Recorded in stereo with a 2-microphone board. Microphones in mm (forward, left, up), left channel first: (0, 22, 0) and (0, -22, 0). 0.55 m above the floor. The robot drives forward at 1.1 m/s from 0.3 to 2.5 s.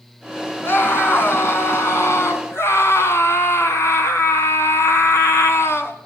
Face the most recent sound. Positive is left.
turn(degrees=80)